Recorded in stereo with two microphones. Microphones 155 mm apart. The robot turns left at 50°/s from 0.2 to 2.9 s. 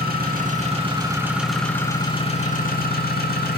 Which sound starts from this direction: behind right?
An engine running, at 0.0 s.